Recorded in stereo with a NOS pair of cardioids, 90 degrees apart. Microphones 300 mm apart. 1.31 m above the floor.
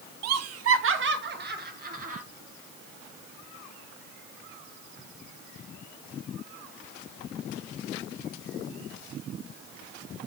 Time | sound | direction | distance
0.2 | laughter | 60° right | 0.7 m